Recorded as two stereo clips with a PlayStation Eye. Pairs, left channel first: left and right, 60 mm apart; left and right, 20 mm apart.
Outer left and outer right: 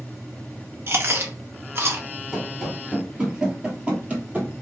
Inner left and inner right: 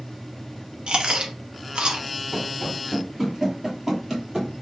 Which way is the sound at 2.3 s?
Centre (ahead or behind).